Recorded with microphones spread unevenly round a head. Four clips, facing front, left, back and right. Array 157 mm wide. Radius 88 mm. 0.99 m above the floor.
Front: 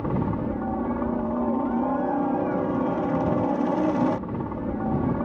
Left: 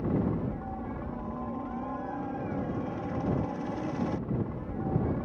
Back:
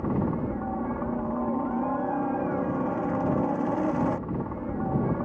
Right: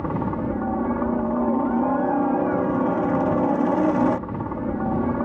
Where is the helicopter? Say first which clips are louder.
Right 5 dB, front 1 dB; 75° right.